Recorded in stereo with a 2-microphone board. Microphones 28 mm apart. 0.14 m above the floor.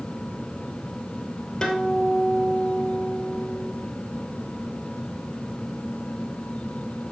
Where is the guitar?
20° left (ahead or behind), 2.5 m.